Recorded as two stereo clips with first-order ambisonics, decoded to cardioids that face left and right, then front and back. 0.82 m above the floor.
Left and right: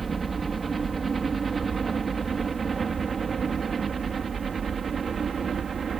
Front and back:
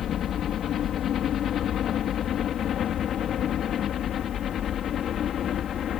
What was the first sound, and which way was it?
A helicopter, 25° right.